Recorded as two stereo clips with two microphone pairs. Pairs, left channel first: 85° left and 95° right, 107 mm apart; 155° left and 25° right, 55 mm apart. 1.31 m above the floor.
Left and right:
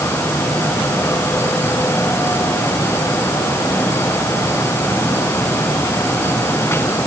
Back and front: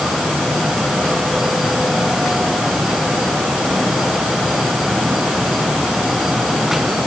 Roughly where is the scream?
I don't hear a scream.